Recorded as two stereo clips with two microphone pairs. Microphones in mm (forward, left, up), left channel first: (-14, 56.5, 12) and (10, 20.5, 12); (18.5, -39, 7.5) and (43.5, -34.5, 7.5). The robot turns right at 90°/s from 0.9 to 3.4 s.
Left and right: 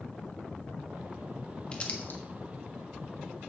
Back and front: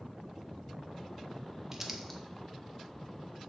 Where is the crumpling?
70° left, 1.4 m; by 2.2 s 115° left, 1.4 m.